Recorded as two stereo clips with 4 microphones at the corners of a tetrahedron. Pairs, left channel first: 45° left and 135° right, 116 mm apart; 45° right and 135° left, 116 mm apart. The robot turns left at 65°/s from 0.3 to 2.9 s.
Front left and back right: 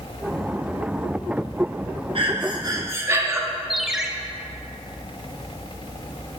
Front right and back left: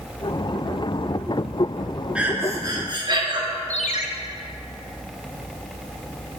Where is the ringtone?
50° right, 0.6 m.